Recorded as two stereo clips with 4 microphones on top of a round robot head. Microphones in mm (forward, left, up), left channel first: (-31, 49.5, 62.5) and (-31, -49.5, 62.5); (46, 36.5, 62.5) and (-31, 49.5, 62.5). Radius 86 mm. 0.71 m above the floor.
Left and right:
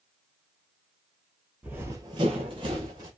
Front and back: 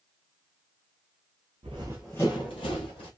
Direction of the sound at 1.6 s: 160° right.